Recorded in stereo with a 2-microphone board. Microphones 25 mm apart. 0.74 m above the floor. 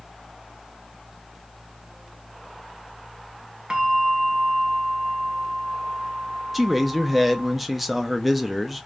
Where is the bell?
45° right (ahead or behind), 0.8 m.